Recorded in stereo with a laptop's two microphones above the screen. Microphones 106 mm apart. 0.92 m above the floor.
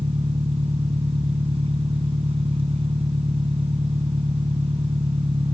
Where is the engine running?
65° right (ahead or behind).